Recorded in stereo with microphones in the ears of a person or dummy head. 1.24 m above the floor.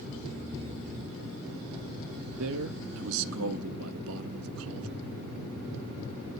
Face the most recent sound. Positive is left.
turn(degrees=-80)